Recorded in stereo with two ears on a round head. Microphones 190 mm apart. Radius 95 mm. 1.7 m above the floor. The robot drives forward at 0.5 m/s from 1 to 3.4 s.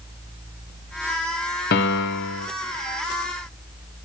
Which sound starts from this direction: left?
A piano, at 1.7 s.